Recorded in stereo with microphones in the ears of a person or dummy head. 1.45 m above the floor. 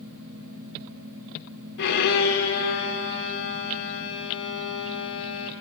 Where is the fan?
60° right (ahead or behind), 1.6 m.